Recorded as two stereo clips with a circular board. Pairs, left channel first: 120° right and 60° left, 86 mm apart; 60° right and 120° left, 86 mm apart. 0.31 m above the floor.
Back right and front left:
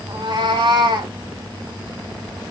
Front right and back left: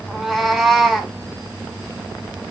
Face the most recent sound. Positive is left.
turn(degrees=30)